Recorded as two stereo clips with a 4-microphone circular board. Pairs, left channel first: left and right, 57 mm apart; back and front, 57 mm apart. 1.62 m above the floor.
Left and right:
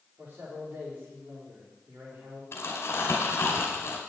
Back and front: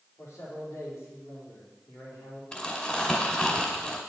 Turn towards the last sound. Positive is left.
turn(degrees=115)